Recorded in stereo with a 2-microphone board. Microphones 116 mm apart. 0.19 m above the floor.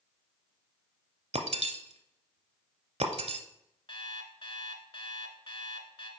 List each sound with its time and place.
1.3 s breaking glass: 70° right (ahead or behind), 0.7 m
3.9 s an alarm clock: 45° left (ahead or behind), 1.1 m